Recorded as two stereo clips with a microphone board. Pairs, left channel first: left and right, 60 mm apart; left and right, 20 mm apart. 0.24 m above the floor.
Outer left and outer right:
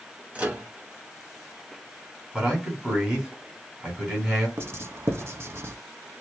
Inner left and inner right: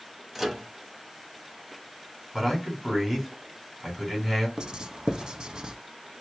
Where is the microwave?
25° right (ahead or behind), 1.1 m.